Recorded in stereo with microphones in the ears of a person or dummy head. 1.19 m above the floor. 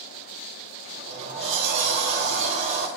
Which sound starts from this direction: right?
A sliding door, at 0.8 s.